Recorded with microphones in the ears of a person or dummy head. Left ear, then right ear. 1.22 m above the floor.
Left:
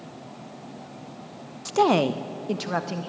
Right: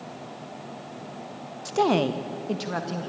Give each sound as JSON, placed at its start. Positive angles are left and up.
{"t": 1.6, "sound": "a woman speaking", "side_deg": 10, "distance_m": 0.6}